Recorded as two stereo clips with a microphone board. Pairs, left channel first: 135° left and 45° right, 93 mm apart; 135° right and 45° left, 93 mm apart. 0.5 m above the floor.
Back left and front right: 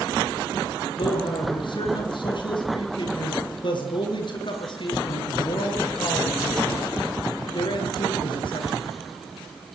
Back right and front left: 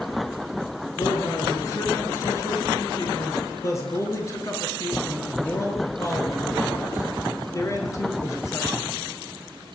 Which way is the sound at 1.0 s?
170° left.